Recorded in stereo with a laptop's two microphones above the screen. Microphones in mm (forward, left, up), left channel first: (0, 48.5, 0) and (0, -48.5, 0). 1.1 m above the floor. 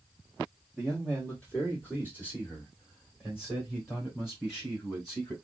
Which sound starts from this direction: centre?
A man speaking, at 0.8 s.